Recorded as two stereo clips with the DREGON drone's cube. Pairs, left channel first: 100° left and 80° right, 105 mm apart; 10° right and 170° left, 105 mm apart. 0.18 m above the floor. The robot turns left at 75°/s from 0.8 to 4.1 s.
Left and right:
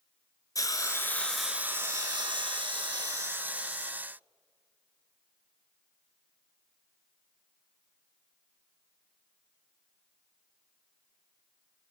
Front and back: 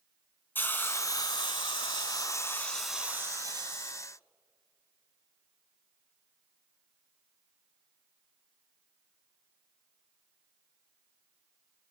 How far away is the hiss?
About 1.7 m.